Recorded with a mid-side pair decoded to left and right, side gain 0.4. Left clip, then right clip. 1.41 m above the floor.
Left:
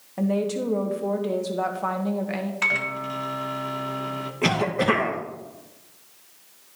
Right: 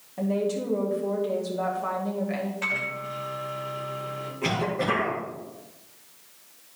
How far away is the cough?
About 1.8 m.